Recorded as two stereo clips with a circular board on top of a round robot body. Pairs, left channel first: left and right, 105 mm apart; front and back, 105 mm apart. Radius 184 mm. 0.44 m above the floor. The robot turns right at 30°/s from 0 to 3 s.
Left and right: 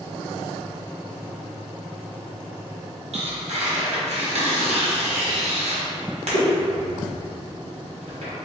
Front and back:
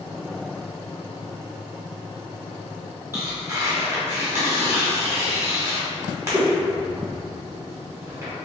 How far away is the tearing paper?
About 1.2 m.